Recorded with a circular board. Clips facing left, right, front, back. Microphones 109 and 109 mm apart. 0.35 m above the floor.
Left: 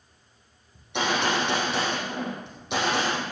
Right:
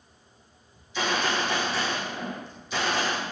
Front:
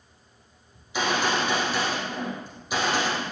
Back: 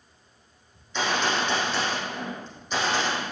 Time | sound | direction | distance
0.8 | a gunshot | 80° left | 5.5 m